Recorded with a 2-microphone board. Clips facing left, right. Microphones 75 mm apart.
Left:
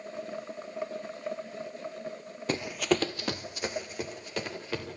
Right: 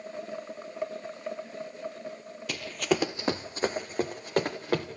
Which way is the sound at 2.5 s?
35° left (ahead or behind).